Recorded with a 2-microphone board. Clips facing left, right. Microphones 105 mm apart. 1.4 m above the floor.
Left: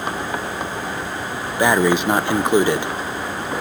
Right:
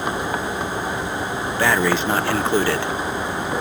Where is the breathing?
15° left (ahead or behind).